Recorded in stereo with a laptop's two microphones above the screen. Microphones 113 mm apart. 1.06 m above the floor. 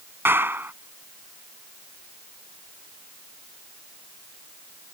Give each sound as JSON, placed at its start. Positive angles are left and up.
{"t": 0.2, "sound": "a clap", "side_deg": -20}